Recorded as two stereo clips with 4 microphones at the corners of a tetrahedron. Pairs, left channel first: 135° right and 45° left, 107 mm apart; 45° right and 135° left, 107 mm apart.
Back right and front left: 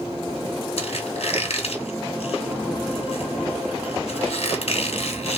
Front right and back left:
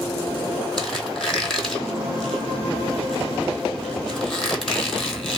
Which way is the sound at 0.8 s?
130° right.